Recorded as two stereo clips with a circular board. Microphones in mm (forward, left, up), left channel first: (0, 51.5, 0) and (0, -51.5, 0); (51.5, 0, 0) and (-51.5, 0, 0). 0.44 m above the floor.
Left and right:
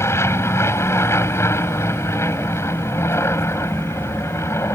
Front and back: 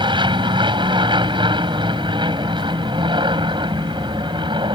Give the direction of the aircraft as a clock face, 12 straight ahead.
7 o'clock.